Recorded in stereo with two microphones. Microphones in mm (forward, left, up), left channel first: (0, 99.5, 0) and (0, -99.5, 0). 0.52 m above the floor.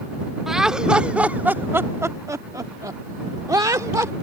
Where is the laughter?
Centre (ahead or behind); by 4.1 s 15° right (ahead or behind).